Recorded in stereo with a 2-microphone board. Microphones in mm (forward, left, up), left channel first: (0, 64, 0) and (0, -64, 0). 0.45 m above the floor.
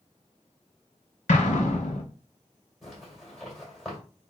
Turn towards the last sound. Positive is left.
turn(degrees=0)  # may be behind; listen again after turning